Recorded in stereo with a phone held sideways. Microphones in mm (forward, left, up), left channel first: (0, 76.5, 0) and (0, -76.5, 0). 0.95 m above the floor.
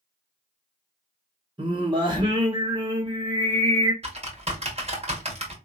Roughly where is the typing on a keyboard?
Right.